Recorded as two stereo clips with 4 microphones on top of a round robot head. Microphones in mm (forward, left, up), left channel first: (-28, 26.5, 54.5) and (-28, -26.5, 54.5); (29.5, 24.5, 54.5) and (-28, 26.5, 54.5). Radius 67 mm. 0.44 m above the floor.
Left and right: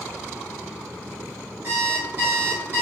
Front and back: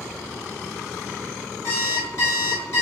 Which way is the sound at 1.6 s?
45° right.